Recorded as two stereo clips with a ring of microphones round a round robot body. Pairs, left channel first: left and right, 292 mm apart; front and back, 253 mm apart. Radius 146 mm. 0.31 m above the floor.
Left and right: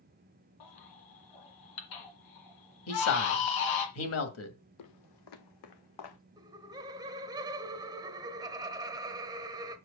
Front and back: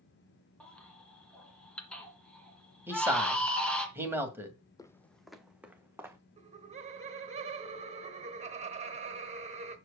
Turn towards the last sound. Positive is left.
turn(degrees=-150)